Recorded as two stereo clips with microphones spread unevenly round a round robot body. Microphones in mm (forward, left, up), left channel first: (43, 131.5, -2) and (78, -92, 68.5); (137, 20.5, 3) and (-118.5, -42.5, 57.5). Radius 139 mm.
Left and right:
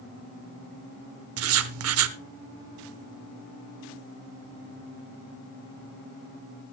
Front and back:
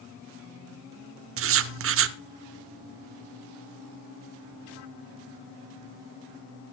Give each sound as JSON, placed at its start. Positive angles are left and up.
{"t": 1.4, "sound": "writing", "azimuth_deg": -120, "distance_m": 0.7}